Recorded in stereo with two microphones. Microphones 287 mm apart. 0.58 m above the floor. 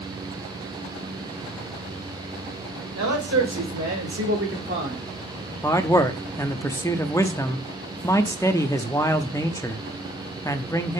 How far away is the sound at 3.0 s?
About 2.5 m.